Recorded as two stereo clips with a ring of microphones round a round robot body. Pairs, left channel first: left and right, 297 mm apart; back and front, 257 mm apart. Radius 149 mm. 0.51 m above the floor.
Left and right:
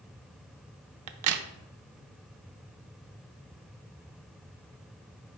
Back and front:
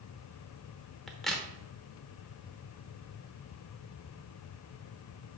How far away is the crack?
About 0.7 m.